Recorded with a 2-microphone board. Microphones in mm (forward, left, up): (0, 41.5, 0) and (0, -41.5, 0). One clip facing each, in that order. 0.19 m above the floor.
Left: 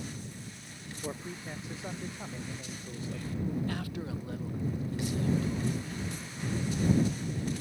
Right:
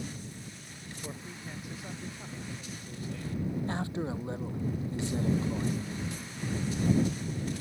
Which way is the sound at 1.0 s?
20° left (ahead or behind).